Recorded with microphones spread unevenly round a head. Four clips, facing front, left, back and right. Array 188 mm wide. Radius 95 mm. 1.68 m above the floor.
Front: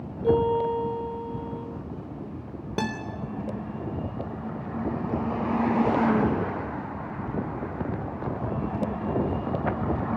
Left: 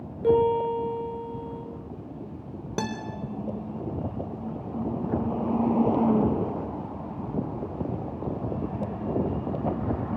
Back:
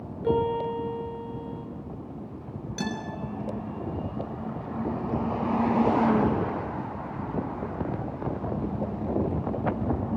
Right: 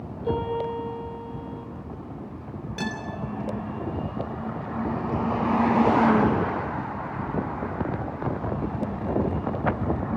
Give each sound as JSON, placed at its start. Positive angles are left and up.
{"t": 0.2, "sound": "a piano", "azimuth_deg": 80, "distance_m": 8.0}
{"t": 2.8, "sound": "a guitar", "azimuth_deg": 45, "distance_m": 4.0}